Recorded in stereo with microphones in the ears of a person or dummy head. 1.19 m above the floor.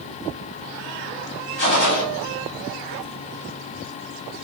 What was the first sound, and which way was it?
A gunshot, 75° left (ahead or behind).